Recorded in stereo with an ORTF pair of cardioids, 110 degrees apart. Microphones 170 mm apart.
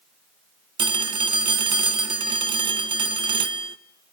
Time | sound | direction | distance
0.8 | a phone ringing | 30° right | 1.1 m